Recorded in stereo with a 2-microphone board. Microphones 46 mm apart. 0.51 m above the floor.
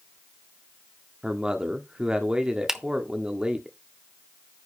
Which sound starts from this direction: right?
A man speaking, at 1.2 s.